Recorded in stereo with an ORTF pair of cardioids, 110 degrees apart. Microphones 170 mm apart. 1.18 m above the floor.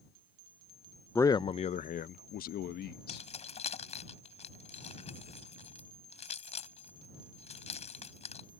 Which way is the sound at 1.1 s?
10° left.